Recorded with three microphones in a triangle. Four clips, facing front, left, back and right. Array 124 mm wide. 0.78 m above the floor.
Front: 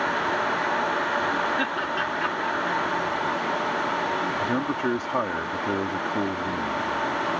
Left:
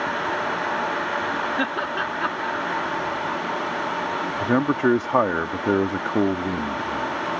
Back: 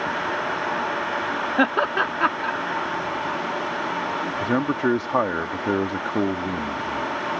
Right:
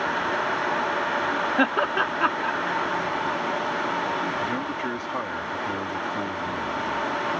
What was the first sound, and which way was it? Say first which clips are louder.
Laughter: right 3 dB, back 6 dB; 155° right.